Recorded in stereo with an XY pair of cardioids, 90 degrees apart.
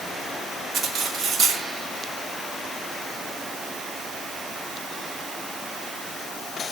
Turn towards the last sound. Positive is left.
turn(degrees=-70)